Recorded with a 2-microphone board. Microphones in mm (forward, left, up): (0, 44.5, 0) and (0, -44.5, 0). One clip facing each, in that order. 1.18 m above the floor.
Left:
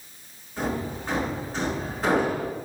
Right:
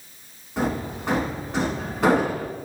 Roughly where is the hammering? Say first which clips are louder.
Right 3 dB; right.